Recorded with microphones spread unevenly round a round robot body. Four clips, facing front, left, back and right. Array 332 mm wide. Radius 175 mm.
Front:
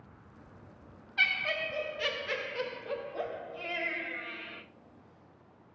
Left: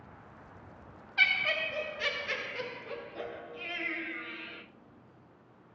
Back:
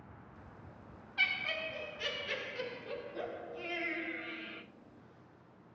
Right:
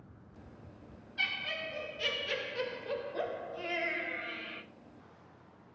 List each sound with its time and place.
1.2 s laughter: 70° left, 1.1 m; by 4.6 s 80° right, 2.0 m